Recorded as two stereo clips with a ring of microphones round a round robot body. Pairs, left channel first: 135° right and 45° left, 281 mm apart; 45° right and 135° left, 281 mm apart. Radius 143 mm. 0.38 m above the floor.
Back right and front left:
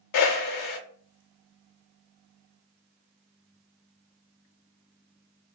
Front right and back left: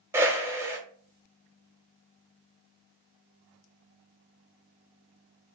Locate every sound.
0.1 s a whoosh: 145° right, 0.6 m